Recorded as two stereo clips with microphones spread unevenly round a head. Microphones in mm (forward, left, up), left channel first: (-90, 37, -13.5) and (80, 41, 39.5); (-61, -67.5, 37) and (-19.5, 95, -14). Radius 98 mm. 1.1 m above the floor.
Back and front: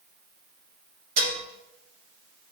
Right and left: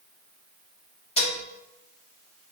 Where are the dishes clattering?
45° right, 1.3 m.